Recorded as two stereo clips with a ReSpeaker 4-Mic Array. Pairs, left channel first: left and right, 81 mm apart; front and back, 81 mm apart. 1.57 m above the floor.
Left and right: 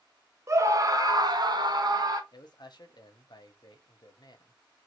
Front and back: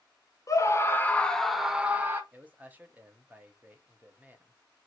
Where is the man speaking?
110° left, 0.9 m.